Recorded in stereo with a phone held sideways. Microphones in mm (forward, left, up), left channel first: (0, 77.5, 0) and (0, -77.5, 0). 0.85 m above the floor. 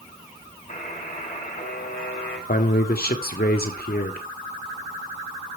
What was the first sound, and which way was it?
A buzzer, 60° left (ahead or behind).